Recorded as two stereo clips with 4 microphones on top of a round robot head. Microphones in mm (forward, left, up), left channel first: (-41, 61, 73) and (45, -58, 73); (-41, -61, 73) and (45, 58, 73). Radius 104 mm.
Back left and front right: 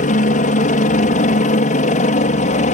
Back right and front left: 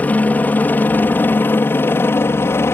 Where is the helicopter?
155° left; by 2.7 s 160° left.